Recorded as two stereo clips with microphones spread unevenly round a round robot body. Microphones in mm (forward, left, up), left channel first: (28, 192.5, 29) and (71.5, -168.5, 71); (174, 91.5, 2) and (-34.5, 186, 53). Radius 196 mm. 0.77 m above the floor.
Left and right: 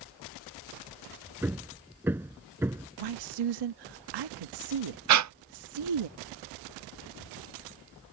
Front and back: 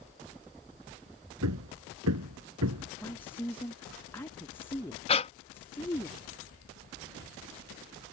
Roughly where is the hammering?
Behind.